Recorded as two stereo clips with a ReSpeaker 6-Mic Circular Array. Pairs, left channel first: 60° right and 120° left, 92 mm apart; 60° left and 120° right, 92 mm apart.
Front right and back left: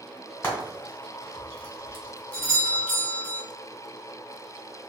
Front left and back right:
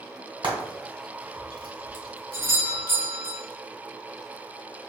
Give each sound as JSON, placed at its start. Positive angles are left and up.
{"t": 0.4, "sound": "frying", "azimuth_deg": -125, "distance_m": 1.8}
{"t": 2.3, "sound": "a doorbell", "azimuth_deg": -110, "distance_m": 1.4}